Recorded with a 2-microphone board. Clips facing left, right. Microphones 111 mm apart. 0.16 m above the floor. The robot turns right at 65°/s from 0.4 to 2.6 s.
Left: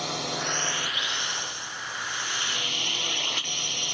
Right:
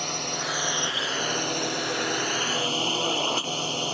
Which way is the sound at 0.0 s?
Straight behind.